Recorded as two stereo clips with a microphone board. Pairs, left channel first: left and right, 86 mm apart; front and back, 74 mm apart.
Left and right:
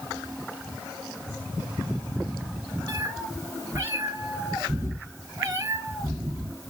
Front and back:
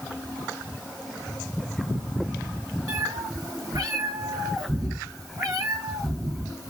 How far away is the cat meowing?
About 1.4 m.